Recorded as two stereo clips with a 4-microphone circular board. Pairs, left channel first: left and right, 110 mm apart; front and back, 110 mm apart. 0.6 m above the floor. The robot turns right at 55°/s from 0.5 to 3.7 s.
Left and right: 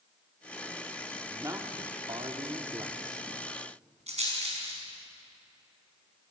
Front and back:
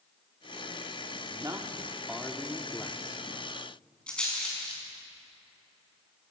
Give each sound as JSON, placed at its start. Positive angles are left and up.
{"t": 1.3, "sound": "a man speaking", "azimuth_deg": -145, "distance_m": 1.6}
{"t": 4.1, "sound": "a rattle", "azimuth_deg": -80, "distance_m": 5.5}